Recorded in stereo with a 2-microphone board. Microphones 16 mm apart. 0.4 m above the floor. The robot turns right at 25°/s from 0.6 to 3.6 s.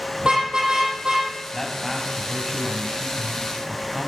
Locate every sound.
0.2 s a car horn: 60° right (ahead or behind), 7.5 m; by 1.3 s 75° right (ahead or behind), 7.5 m
1.5 s a man speaking: 155° left, 3 m; by 4.1 s 150° right, 3 m